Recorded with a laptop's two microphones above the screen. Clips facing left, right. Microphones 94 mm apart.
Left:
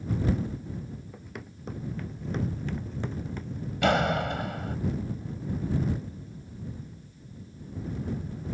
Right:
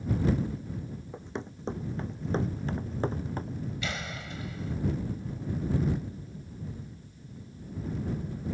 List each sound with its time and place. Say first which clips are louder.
1.1 s running footsteps: right 5 dB; 25° right (ahead or behind); by 3.6 s 40° right (ahead or behind)
3.8 s a door slam: left 13 dB; 60° left (ahead or behind)